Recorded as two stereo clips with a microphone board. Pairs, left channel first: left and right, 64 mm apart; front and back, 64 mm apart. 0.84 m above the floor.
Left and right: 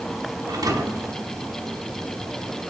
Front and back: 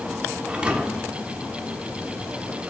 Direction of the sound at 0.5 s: 105° right.